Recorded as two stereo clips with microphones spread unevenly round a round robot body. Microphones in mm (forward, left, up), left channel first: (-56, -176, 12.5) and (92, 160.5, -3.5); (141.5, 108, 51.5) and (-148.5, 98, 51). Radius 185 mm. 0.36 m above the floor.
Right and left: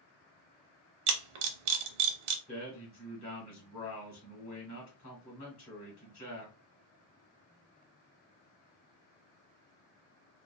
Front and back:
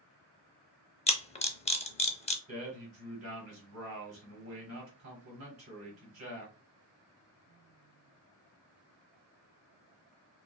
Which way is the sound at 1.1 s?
75° left.